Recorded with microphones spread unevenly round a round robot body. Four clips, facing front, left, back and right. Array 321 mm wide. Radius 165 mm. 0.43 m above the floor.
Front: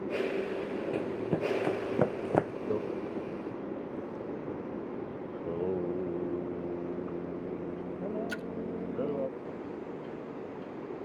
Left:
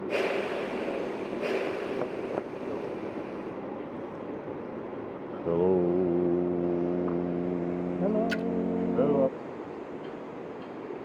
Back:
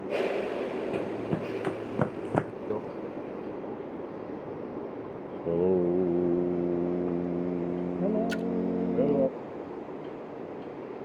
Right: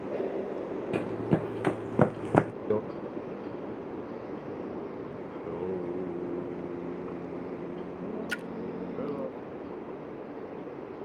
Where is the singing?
140° left.